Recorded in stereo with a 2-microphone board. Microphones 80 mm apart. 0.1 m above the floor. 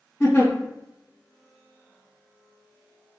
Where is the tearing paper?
I don't hear tearing paper.